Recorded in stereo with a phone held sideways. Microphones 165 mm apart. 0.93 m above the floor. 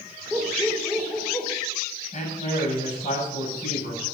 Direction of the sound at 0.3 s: Centre (ahead or behind).